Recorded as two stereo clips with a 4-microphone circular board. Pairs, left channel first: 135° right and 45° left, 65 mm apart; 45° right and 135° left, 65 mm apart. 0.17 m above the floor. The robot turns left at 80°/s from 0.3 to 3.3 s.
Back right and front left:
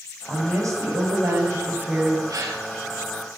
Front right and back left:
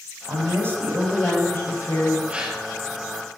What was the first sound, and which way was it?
A woman speaking, 110° left.